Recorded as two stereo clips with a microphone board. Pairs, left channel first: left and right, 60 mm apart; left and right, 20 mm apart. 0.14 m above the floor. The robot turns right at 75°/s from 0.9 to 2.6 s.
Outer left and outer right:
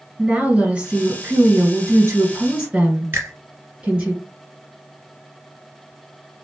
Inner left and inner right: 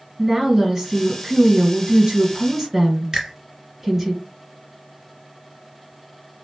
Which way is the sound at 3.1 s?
40° right (ahead or behind).